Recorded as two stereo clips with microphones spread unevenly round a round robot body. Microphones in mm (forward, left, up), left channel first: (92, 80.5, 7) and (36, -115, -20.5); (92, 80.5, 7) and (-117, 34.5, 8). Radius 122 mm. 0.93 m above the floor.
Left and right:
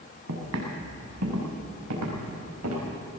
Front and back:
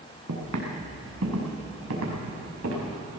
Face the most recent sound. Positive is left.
turn(degrees=-120)